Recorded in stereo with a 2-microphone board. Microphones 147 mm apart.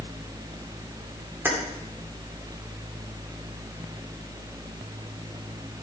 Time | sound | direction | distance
1.4 | keys jangling | 10° right (ahead or behind) | 3 m